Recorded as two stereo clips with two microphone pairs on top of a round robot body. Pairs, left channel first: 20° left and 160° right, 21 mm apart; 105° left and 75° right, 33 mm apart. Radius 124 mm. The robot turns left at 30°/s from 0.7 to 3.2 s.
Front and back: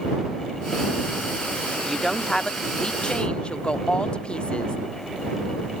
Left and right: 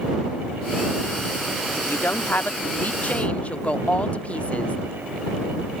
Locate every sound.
1.7 s a woman speaking: 105° left; by 4.8 s 60° left